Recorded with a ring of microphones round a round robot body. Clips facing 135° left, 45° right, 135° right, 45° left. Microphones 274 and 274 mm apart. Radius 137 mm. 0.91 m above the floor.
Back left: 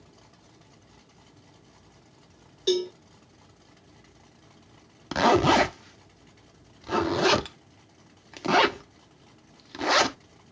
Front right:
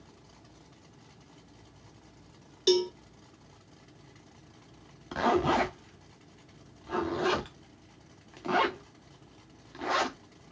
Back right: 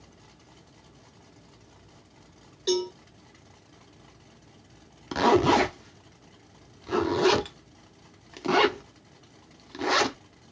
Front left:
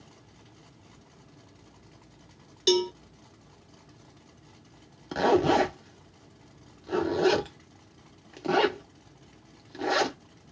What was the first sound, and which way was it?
A cowbell, 20° left.